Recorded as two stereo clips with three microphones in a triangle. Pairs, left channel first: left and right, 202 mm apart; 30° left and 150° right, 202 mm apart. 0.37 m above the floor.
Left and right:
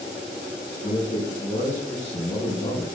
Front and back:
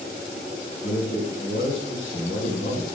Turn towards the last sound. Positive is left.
turn(degrees=35)